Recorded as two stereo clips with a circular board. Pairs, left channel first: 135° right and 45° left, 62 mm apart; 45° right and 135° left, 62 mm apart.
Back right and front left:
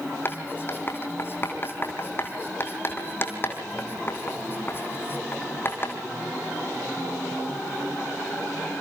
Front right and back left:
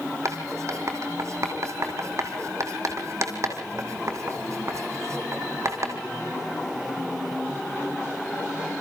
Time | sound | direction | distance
0.2 | writing | 170° left | 2.5 m